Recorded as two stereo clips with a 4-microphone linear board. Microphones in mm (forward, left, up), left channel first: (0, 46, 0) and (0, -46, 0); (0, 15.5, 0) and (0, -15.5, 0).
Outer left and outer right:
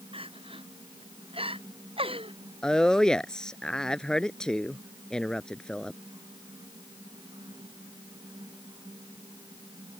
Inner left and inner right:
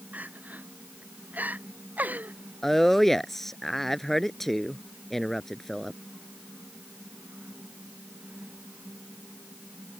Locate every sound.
0.1 s crying: 75° right (ahead or behind)
2.6 s a woman speaking: 5° left (ahead or behind)